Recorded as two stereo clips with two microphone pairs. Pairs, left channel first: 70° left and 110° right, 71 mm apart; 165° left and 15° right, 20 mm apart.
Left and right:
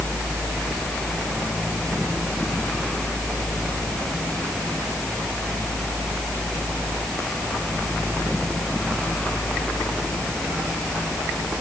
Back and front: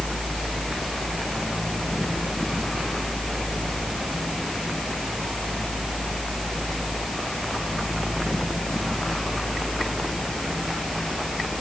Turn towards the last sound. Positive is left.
No sound to turn to.